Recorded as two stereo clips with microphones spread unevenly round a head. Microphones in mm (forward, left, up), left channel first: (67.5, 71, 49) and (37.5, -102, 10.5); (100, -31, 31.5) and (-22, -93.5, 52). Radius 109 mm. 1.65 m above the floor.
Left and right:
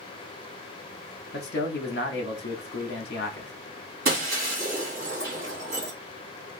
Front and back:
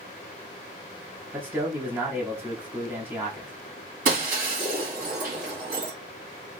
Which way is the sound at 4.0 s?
155° right.